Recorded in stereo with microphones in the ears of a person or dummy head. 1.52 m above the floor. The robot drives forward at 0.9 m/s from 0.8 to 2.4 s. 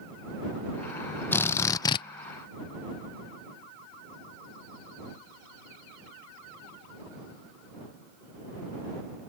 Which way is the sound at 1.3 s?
15° left (ahead or behind).